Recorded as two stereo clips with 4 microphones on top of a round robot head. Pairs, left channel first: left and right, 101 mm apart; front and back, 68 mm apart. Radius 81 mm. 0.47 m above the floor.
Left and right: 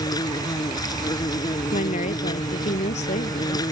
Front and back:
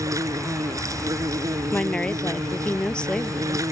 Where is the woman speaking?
75° left.